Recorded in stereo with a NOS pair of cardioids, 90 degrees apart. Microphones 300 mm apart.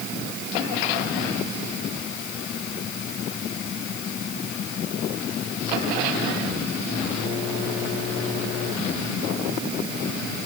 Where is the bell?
I don't hear a bell.